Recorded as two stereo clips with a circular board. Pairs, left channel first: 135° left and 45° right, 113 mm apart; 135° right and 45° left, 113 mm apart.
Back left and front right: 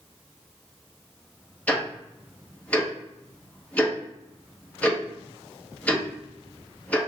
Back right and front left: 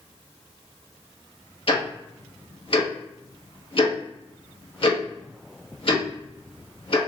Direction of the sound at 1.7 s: 150° right.